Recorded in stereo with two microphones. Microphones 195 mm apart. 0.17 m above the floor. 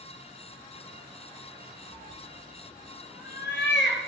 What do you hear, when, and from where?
1.9 s a cat meowing: 5° left (ahead or behind), 1.6 m; by 4.0 s 70° left (ahead or behind), 2 m